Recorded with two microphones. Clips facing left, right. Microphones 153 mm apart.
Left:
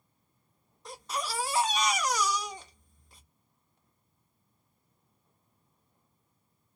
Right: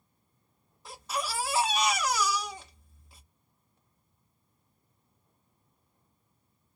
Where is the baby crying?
5° right (ahead or behind), 1.6 m.